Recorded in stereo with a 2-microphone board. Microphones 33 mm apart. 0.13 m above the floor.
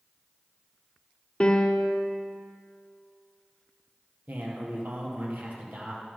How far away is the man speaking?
About 2.5 m.